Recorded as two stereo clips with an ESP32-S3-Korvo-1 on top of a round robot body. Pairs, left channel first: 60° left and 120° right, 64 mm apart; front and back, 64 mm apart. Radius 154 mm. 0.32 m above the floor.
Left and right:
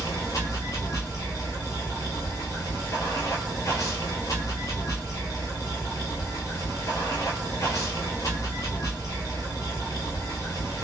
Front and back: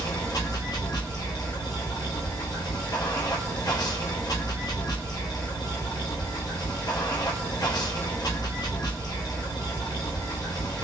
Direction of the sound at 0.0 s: 20° left.